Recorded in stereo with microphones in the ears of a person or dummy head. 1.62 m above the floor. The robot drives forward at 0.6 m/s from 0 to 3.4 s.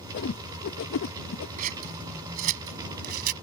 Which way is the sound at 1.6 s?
40° right (ahead or behind).